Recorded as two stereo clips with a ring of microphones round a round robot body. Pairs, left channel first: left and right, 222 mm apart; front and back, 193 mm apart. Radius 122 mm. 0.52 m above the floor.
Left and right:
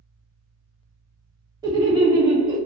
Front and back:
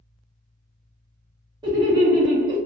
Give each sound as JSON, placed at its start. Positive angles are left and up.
{"t": 1.6, "sound": "laughter", "azimuth_deg": -140, "distance_m": 0.7}